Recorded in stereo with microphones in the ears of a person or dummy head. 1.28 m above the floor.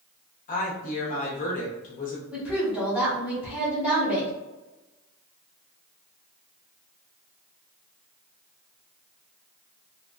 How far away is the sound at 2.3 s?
About 1.3 m.